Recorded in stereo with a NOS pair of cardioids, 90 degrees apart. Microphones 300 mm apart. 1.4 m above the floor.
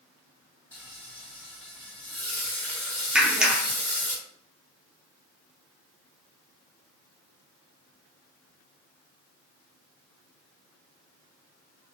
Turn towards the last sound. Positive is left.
turn(degrees=-5)